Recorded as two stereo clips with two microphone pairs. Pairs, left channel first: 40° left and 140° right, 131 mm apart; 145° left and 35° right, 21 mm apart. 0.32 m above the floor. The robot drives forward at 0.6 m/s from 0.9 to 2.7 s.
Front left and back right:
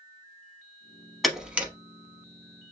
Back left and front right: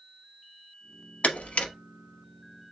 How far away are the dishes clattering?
No dishes clattering in this recording.